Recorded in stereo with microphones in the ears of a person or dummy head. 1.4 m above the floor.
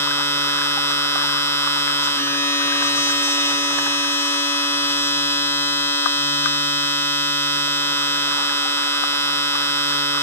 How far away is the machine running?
About 1.2 m.